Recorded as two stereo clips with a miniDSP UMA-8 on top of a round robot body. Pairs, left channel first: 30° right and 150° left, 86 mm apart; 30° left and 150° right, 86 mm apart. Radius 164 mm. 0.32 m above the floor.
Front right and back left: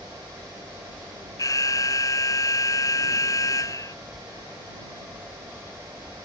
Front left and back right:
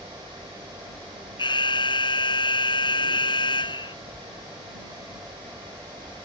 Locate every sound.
1.4 s an alarm: 15° left